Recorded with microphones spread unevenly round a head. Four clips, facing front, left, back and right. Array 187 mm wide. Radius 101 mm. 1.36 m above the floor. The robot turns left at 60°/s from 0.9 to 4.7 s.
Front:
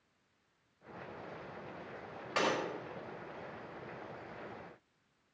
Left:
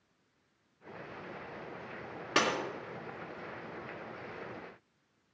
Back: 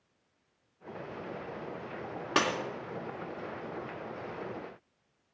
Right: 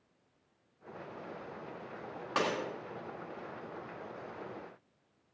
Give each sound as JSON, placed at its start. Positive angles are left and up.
{"t": 2.4, "sound": "breaking glass", "azimuth_deg": 170, "distance_m": 2.5}